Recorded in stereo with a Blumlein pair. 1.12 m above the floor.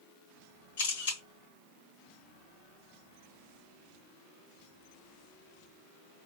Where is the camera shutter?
60° left, 3.5 m.